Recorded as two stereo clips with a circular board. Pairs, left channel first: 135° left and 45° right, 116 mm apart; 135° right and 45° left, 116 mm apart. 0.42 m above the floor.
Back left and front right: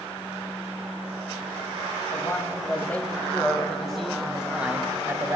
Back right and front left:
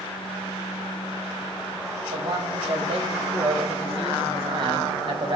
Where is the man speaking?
70° left, 2.5 m; by 5.4 s 15° left, 1.8 m.